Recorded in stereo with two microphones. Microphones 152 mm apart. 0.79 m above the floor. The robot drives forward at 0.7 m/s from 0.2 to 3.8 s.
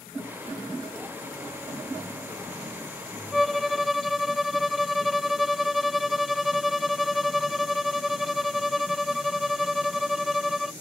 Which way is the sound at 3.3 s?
Centre (ahead or behind).